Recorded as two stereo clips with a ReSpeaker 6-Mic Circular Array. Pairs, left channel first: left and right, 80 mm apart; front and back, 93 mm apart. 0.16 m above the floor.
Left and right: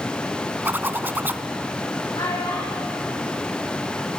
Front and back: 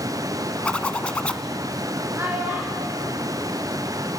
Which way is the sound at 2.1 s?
115° left.